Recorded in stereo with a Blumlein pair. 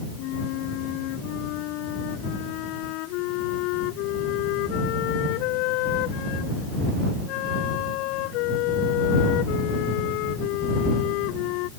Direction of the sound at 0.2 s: 40° left.